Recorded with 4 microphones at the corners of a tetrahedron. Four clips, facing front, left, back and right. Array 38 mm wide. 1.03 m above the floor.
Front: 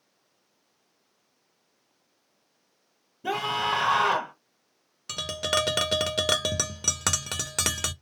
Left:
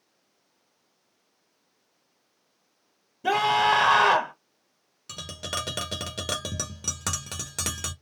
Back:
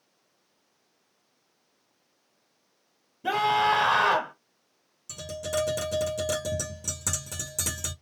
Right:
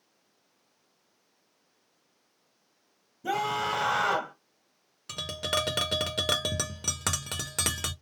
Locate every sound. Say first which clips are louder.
3.2 s a scream: left 8 dB, back 4 dB; 105° left, 2 m
5.1 s tapping: right 3 dB, front 4 dB; 10° right, 1.3 m